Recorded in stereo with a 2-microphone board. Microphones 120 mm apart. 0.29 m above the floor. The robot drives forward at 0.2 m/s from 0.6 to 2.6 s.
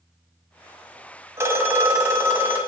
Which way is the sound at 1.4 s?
20° right (ahead or behind).